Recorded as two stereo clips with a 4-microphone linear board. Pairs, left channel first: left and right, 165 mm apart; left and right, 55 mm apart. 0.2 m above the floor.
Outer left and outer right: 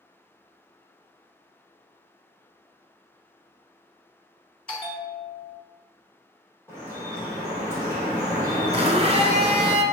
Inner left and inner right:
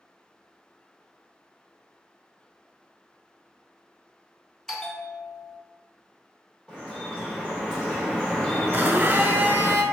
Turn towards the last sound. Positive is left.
turn(degrees=-40)  # may be behind; listen again after turning